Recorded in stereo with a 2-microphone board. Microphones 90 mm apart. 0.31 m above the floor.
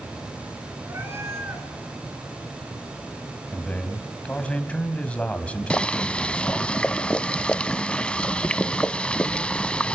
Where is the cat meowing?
30° right (ahead or behind), 2 m.